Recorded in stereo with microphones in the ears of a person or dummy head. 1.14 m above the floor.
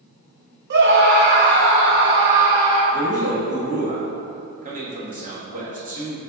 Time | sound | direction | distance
0.7 | a scream | 60° right (ahead or behind) | 1.0 m
2.9 | a man speaking | 40° right (ahead or behind) | 1.6 m